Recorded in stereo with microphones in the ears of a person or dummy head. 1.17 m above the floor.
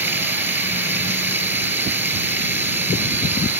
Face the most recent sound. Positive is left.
turn(degrees=-10)  # may be behind; listen again after turning